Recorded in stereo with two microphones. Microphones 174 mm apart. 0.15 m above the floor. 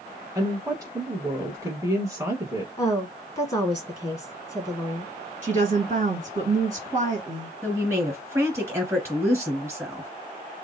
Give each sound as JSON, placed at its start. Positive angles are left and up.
{"t": 0.3, "sound": "a woman speaking", "side_deg": -20, "distance_m": 1.0}
{"t": 2.8, "sound": "a woman speaking", "side_deg": 20, "distance_m": 1.3}
{"t": 5.4, "sound": "a woman speaking", "side_deg": -45, "distance_m": 2.0}
{"t": 7.6, "sound": "a woman speaking", "side_deg": -15, "distance_m": 1.8}